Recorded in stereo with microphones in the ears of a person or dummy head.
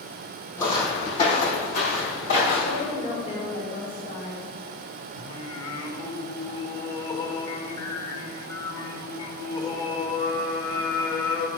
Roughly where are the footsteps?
Centre.